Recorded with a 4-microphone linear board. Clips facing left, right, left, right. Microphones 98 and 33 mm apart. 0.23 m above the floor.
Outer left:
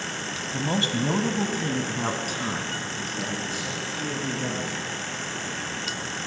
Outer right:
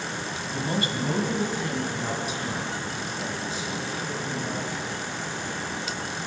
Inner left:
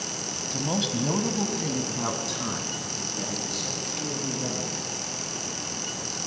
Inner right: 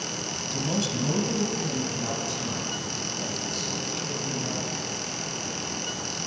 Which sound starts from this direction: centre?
A man speaking, at 0.5 s.